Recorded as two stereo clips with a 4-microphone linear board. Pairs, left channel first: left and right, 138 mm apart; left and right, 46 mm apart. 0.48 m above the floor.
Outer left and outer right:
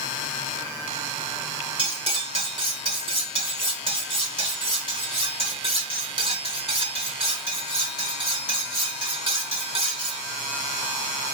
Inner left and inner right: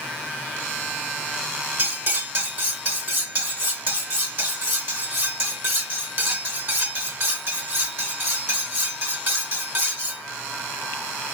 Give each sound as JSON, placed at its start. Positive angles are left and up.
{"t": 1.8, "sound": "cutlery clinking", "side_deg": -40, "distance_m": 0.8}